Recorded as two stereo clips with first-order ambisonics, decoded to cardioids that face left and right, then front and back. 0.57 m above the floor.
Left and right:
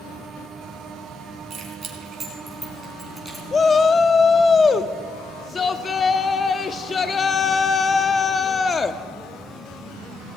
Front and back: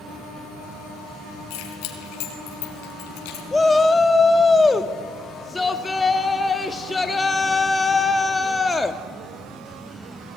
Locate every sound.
1.5 s keys jangling: 15° right, 4 m; by 3.4 s straight ahead, 4 m
3.5 s a shout: 65° left, 0.6 m